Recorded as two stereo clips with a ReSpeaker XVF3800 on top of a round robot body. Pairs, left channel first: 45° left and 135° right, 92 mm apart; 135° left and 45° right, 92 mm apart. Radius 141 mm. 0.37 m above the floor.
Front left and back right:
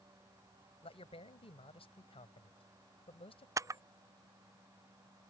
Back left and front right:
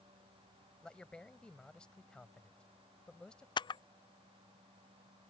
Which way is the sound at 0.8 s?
55° left.